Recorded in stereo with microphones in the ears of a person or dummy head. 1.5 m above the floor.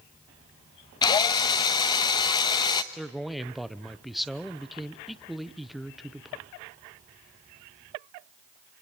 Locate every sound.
1.0 s a drill: 25° left (ahead or behind), 1.0 m
2.9 s a man speaking: centre (ahead or behind), 0.8 m